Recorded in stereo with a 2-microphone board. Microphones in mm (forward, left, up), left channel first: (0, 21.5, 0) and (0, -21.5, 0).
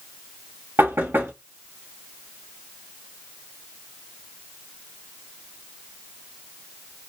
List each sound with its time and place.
0.8 s knocking: 70° right (ahead or behind), 2 m